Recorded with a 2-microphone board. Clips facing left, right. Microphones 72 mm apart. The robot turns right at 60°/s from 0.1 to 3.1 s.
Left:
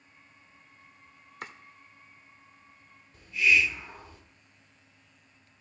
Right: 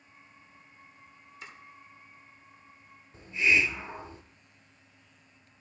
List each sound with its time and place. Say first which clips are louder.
1.4 s chopping: left 6 dB; 60° left (ahead or behind), 0.8 m
3.1 s a hiss: left 1 dB; 30° right (ahead or behind), 0.6 m